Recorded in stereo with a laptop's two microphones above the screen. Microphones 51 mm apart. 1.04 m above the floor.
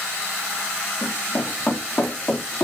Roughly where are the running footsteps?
Left.